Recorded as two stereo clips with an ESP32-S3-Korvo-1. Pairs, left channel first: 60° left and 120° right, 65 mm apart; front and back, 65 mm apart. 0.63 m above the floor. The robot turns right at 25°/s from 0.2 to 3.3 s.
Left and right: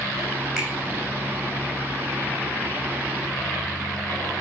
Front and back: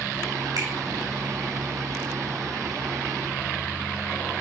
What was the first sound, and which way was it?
A finger snap, 155° left.